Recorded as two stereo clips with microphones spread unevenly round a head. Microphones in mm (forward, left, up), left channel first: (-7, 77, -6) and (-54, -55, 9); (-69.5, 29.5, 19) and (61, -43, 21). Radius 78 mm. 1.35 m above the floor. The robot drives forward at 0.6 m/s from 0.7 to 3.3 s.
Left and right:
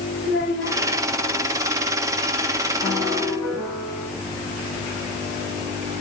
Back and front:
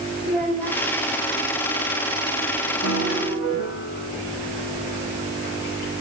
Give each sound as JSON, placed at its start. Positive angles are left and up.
{"t": 0.2, "sound": "a child speaking", "azimuth_deg": 65, "distance_m": 4.0}
{"t": 2.8, "sound": "a piano", "azimuth_deg": 140, "distance_m": 4.5}